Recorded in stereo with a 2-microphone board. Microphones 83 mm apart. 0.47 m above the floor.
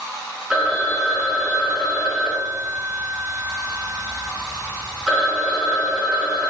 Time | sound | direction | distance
0.5 | a phone ringing | 5° right (ahead or behind) | 1.0 m